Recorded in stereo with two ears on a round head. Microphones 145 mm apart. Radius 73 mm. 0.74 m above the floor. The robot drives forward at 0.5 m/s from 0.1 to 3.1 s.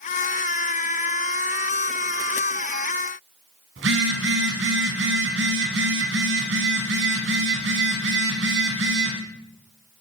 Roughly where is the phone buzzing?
Right.